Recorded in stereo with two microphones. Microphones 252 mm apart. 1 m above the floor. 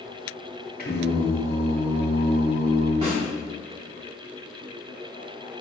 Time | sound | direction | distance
0.8 | singing | 40° left (ahead or behind) | 0.9 m
3.0 | a snare drum | 25° right (ahead or behind) | 2.0 m